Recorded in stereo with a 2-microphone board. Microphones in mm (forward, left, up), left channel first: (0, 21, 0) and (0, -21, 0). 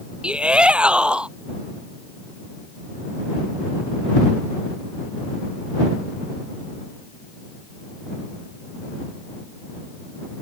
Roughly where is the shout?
Right.